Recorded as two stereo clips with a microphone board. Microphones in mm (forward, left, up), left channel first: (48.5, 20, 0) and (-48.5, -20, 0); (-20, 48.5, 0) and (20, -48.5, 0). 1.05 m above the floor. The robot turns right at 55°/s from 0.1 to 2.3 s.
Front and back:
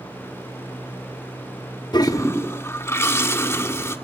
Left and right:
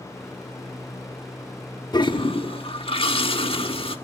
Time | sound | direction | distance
1.9 | a toilet flushing | 65° left | 1.3 m